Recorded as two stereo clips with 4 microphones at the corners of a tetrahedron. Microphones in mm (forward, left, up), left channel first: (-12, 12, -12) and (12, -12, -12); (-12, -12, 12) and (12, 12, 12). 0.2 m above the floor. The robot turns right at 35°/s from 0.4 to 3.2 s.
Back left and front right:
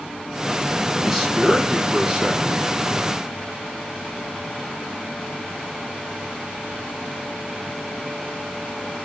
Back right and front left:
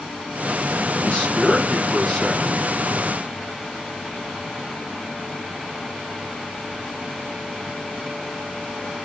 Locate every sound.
1.0 s a man speaking: 125° right, 1.3 m; by 2.4 s 75° right, 1.3 m